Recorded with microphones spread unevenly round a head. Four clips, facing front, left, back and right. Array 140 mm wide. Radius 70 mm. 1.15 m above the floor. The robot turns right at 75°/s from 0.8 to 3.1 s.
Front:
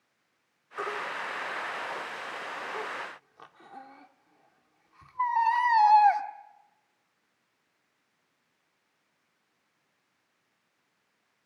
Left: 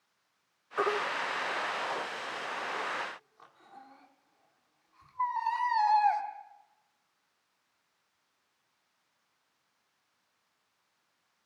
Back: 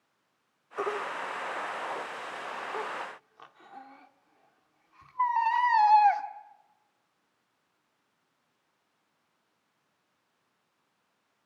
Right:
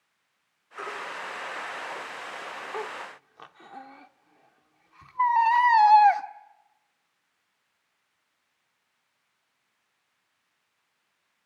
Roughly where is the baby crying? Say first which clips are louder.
Left 6 dB, back 2 dB; behind left.